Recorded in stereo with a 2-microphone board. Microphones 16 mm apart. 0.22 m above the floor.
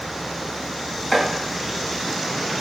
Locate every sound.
1.1 s chopping: 15° right (ahead or behind), 1.3 m